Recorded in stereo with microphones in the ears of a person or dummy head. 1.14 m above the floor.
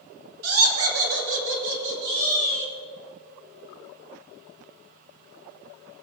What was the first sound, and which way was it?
Laughter, 80° right.